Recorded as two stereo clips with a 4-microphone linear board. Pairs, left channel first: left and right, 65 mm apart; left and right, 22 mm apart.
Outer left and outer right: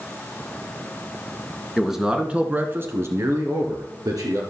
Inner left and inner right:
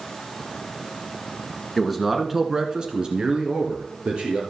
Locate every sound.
1.8 s a man speaking: centre (ahead or behind), 1.8 m; by 4.4 s 65° right (ahead or behind), 2.5 m